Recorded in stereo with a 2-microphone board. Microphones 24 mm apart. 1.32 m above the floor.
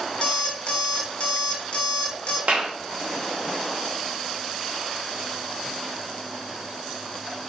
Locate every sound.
0.2 s an alarm clock: 55° left (ahead or behind), 0.8 m
2.5 s a clap: 65° right (ahead or behind), 1.0 m